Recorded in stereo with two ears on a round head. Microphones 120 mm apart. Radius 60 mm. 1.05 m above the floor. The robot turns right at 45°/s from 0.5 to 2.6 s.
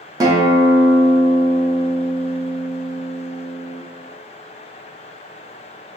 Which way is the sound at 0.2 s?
25° right.